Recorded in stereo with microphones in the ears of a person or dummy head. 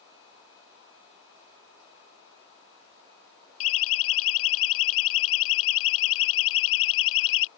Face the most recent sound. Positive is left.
turn(degrees=75)  # may be behind; listen again after turning